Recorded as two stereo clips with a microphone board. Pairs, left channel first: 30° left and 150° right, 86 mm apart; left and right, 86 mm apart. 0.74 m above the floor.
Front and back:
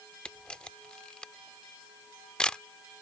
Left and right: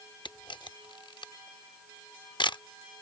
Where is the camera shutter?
110° left.